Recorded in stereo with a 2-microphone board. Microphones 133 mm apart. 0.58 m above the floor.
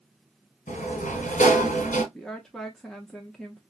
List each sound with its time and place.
0.7 s a sliding door: 75° left (ahead or behind), 1.3 m
2.1 s a woman speaking: 5° left (ahead or behind), 0.6 m